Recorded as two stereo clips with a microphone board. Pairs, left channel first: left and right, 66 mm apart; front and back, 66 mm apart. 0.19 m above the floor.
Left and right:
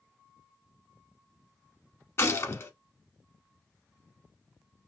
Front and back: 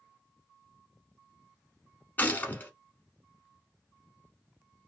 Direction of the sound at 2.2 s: 55° left.